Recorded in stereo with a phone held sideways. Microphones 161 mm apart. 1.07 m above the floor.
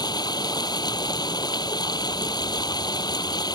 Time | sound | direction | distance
0.0 | running water | 25° left (ahead or behind) | ?